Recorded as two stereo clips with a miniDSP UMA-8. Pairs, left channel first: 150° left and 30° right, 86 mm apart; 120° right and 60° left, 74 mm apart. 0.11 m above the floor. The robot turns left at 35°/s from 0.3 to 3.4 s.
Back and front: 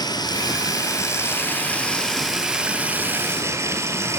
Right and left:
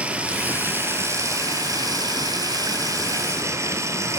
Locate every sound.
0.0 s running water: 130° left, 2 m; by 4.2 s 20° left, 2 m